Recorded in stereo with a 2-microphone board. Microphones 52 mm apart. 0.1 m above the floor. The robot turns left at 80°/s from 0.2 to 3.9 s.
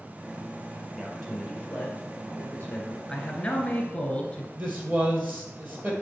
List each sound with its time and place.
0.9 s a man speaking: 170° right, 2.5 m; by 3.0 s 25° left, 2.5 m
3.1 s a man speaking: 15° left (ahead or behind), 1.2 m; by 4.5 s 20° left (ahead or behind), 1.2 m
4.5 s a man speaking: 35° right (ahead or behind), 2.5 m